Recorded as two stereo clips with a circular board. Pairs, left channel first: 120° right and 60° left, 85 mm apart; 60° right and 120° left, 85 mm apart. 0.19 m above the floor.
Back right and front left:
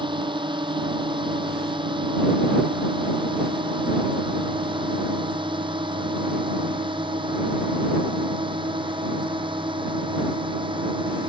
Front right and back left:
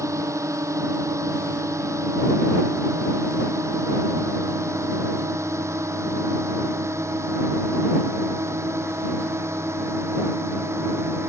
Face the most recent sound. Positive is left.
turn(degrees=65)